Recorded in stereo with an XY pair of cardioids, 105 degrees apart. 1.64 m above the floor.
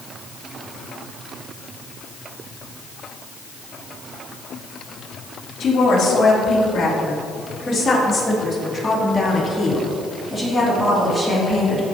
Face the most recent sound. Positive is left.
turn(degrees=-20)